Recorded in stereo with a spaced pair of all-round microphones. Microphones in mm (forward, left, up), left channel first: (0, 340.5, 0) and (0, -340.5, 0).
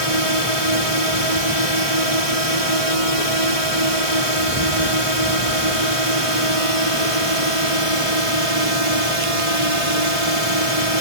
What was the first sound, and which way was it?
A drone, 50° right (ahead or behind).